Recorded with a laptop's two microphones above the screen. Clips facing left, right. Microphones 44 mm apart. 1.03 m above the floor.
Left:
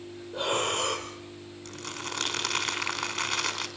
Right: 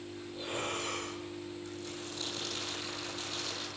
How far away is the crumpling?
About 4.5 m.